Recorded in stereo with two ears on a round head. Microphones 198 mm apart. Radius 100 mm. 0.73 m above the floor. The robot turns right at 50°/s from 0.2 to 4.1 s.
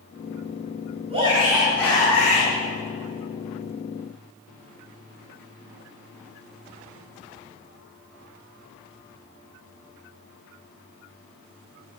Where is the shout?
30° right, 7.5 m; by 2.5 s 40° left, 7.5 m.